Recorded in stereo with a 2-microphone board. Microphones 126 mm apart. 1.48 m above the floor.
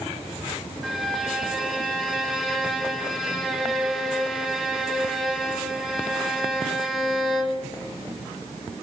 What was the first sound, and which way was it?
A violin, centre (ahead or behind).